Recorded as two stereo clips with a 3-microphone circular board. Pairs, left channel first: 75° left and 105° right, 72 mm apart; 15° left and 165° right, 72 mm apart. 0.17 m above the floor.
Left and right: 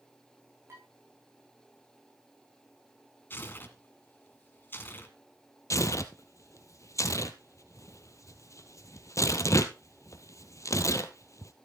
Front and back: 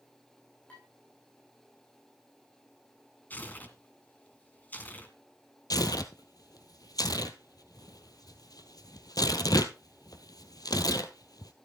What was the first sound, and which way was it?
Dishes clattering, 60° right.